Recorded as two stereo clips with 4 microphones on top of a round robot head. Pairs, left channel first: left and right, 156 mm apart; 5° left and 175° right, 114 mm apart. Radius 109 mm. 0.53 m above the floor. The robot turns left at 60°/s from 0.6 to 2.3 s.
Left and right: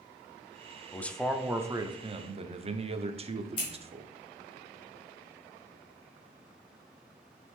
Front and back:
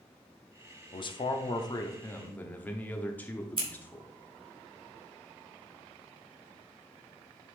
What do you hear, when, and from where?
0.9 s a man speaking: 20° left, 0.8 m; by 4.1 s 65° right, 0.8 m
3.6 s scissors: 150° left, 3.5 m